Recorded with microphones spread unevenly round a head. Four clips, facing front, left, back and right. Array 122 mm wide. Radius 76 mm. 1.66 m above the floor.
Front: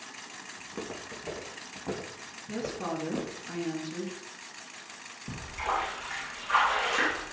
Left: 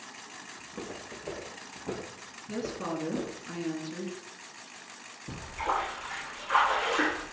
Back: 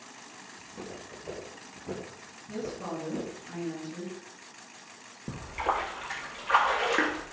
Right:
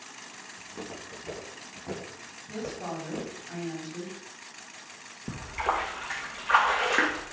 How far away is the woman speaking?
About 3.5 m.